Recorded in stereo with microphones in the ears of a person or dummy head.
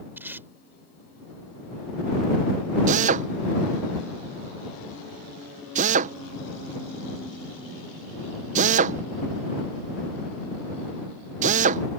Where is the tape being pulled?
10° right (ahead or behind).